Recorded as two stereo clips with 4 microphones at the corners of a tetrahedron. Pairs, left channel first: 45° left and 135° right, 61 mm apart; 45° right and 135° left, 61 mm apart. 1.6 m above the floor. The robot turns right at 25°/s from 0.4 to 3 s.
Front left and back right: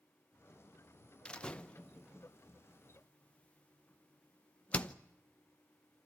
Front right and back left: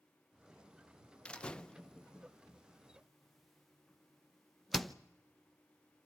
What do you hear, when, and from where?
1.2 s a door slam: straight ahead, 0.7 m; by 5.0 s 45° left, 0.7 m